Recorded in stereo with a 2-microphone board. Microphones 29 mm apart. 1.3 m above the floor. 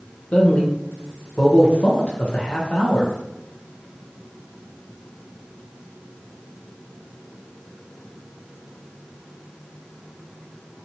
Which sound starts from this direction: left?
A man speaking, at 0.3 s.